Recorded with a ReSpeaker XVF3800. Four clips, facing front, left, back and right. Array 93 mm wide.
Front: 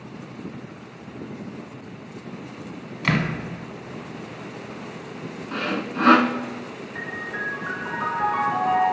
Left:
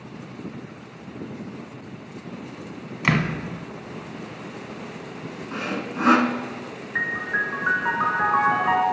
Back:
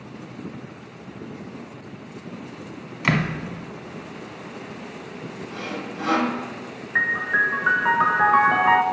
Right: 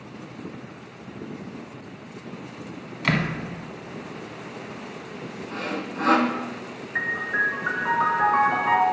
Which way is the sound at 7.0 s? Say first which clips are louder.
Even, back 11 dB; 165° left.